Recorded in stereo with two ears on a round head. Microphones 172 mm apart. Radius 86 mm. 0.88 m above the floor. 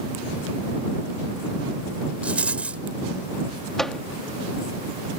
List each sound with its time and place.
2.2 s a rattle: 5° right (ahead or behind)
3.8 s a microwave: centre (ahead or behind)